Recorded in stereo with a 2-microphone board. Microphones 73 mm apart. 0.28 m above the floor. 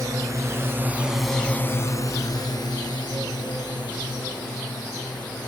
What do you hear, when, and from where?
0.0 s a drone: 50° right (ahead or behind); by 5.5 s 85° left